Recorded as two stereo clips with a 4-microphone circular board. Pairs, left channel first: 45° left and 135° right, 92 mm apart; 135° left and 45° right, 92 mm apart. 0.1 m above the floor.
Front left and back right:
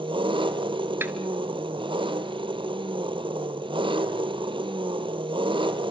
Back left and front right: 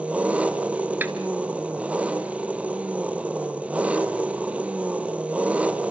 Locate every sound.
0.0 s an engine running: 120° right, 1.3 m
1.0 s a snare drum: 95° right, 1.5 m